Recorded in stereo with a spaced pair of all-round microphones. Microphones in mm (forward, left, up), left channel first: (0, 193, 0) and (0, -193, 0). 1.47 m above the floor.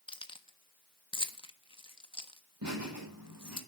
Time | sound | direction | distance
0.1 | keys jangling | 15° left (ahead or behind) | 1.2 m
2.6 | laughter | 55° right (ahead or behind) | 7.5 m